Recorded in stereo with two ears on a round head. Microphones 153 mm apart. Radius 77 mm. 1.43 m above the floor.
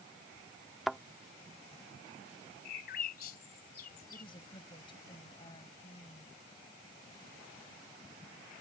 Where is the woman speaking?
30° left (ahead or behind).